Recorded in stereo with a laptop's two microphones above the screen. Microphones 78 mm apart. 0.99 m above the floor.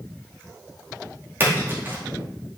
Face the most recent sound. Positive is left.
turn(degrees=-30)  # may be behind; listen again after turning